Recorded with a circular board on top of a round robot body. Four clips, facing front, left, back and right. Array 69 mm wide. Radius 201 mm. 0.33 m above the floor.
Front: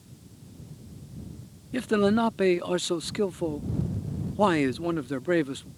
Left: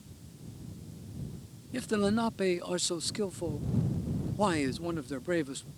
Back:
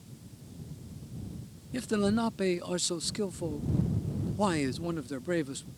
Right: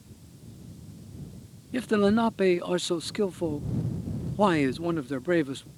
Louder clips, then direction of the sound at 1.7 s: Right 6 dB, front 5 dB; 40° right.